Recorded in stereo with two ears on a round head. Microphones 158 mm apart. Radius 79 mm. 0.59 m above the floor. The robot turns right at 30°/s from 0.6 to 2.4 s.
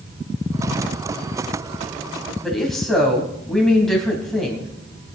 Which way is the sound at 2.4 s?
Centre (ahead or behind).